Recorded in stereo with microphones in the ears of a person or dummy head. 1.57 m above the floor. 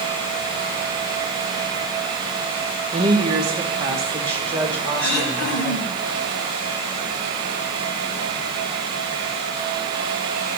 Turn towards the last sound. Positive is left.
turn(degrees=60)  # may be behind; listen again after turning